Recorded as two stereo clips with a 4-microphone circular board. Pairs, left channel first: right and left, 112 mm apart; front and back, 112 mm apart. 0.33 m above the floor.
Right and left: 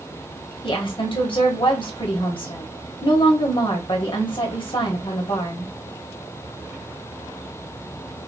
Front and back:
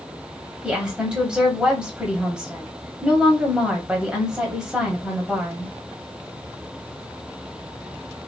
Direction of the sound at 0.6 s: 100° right.